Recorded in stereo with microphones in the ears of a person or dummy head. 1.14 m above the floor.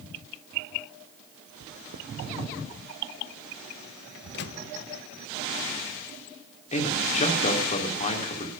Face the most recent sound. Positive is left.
turn(degrees=35)  # may be behind; listen again after turning